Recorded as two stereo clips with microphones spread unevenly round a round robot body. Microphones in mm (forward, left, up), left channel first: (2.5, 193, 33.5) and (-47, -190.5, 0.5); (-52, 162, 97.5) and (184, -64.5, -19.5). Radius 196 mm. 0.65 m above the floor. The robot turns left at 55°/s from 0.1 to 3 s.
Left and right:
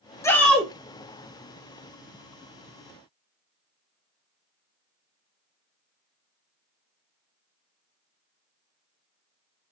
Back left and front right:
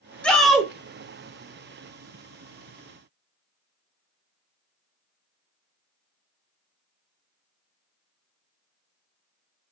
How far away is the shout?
About 0.8 m.